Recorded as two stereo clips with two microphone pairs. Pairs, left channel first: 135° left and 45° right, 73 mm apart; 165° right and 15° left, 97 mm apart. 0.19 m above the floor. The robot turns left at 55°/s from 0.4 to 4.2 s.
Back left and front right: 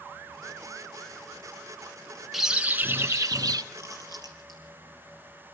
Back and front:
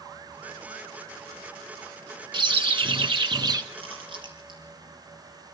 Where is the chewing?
10° left, 4 m; by 4.6 s 20° right, 4 m.